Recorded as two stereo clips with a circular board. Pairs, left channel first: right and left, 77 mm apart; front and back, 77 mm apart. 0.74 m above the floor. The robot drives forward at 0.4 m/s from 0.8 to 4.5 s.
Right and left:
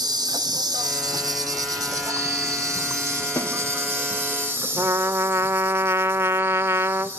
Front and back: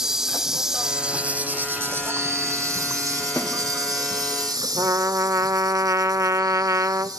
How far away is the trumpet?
About 0.6 m.